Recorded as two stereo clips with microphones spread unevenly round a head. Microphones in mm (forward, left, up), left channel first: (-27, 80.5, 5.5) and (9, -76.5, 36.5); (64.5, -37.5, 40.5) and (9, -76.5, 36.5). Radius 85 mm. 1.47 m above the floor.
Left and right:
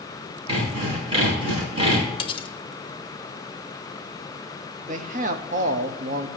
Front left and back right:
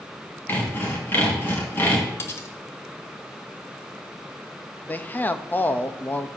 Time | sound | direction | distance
0.5 | sawing | 20° right | 4.5 m
2.2 | cutlery clinking | 45° left | 0.6 m
4.9 | a man speaking | 30° right | 0.9 m